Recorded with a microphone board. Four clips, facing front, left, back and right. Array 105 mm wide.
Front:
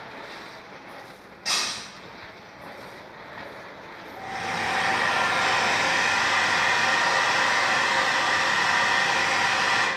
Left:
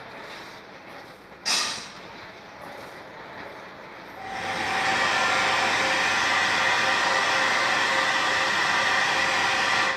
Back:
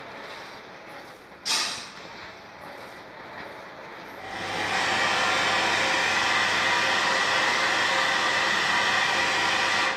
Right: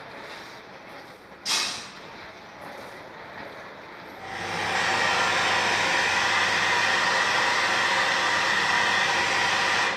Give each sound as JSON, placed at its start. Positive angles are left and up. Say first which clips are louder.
{"t": 1.4, "sound": "breaking glass", "louder": "left 2 dB, front 1 dB", "azimuth_deg": 45, "distance_m": 1.6}
{"t": 4.2, "sound": "a hair dryer", "louder": "left 1 dB, front 2 dB", "azimuth_deg": 5, "distance_m": 1.7}